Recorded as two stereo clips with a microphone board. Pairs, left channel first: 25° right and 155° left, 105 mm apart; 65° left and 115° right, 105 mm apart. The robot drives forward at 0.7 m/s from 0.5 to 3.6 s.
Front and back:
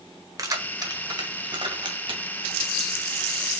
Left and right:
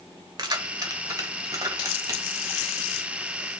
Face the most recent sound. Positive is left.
turn(degrees=-170)